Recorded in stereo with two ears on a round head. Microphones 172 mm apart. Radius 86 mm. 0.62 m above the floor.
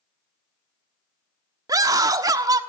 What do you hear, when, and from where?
1.7 s a scream: 20° right (ahead or behind), 1.2 m